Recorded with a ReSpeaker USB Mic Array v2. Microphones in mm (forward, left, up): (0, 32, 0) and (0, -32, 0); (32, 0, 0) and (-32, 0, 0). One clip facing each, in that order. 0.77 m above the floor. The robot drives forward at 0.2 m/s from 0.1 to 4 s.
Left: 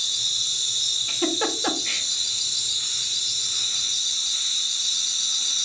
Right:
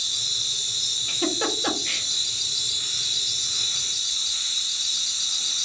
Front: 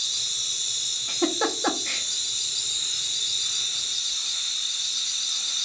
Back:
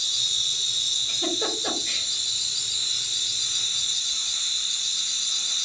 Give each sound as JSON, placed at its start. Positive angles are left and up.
{"t": 0.0, "sound": "an insect", "azimuth_deg": -60, "distance_m": 1.9}
{"t": 1.1, "sound": "a giggle", "azimuth_deg": 10, "distance_m": 0.7}